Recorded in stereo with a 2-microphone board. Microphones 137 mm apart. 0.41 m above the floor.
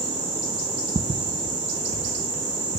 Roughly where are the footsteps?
Right.